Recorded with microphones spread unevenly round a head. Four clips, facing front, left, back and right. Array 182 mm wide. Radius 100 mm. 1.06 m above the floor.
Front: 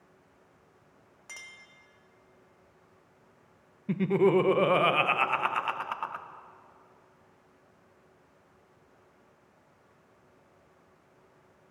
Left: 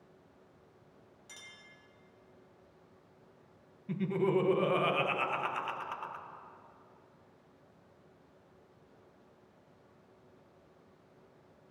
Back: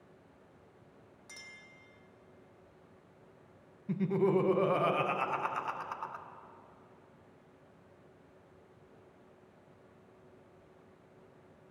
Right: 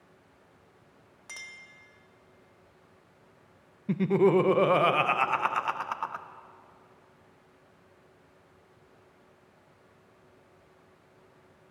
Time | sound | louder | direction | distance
1.3 | a clink | right 9 dB, front 5 dB | 50° right | 1.7 m
3.9 | laughter | right 8 dB, front 6 dB | 60° right | 0.7 m